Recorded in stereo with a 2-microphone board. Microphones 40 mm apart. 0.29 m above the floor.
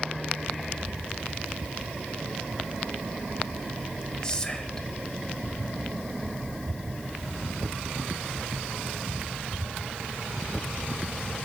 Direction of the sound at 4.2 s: 20° left (ahead or behind).